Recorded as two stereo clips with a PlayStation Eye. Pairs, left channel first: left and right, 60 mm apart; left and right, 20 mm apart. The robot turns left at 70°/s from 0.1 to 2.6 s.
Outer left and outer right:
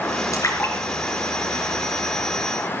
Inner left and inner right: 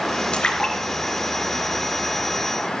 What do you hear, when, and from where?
0.3 s a splash: 55° left (ahead or behind), 5 m; by 2.1 s 60° right (ahead or behind), 5 m